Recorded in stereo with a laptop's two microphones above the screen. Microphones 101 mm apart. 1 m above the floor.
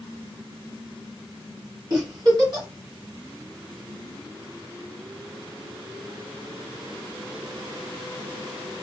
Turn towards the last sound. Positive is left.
turn(degrees=-45)  # may be behind; listen again after turning